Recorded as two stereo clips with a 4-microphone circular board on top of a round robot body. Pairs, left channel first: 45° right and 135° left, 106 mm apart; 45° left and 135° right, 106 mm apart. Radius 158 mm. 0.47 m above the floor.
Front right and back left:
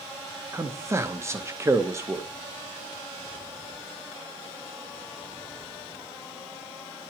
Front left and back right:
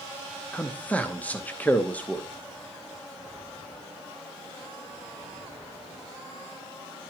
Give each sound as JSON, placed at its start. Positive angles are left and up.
{"t": 0.5, "sound": "a man speaking", "azimuth_deg": 110, "distance_m": 1.1}